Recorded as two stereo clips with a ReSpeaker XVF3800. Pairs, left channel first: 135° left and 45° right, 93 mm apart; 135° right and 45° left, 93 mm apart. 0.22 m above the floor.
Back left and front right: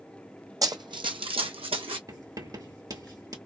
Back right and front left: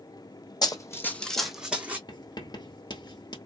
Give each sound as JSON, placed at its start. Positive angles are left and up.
{"t": 0.6, "sound": "running footsteps", "azimuth_deg": -95, "distance_m": 0.6}
{"t": 2.1, "sound": "writing", "azimuth_deg": -95, "distance_m": 0.9}